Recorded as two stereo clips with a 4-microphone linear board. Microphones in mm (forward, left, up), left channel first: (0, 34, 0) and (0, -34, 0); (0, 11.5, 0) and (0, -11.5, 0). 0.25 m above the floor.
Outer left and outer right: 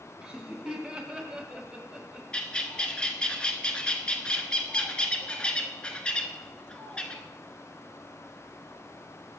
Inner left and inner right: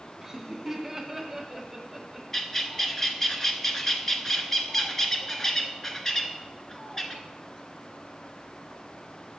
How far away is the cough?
No cough in this recording.